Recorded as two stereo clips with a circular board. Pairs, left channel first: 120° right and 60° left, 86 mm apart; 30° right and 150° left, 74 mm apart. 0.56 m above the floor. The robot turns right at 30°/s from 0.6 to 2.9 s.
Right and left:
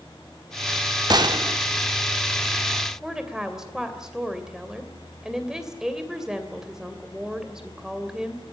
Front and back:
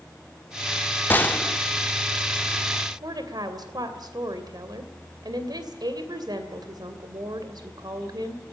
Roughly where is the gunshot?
Ahead left.